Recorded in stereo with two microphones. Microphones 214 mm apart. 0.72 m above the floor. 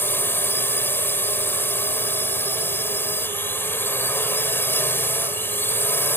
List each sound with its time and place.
0.0 s a drone: 10° left (ahead or behind)